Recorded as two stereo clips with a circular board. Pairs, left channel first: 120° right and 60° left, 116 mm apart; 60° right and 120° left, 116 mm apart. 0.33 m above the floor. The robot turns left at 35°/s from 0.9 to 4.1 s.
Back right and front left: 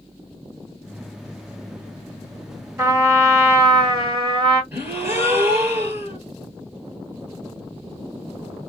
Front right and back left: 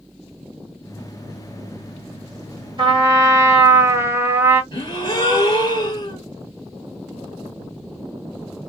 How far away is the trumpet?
About 1.4 m.